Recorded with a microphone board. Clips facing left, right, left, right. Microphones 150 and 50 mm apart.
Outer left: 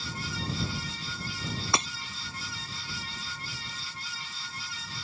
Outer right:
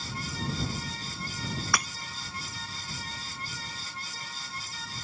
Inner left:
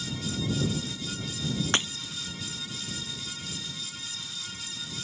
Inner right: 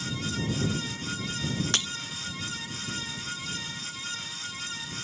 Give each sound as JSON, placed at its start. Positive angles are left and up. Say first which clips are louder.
{"t": 1.7, "sound": "breaking glass", "louder": "outer left 2 dB, inner left 6 dB", "side_deg": 25}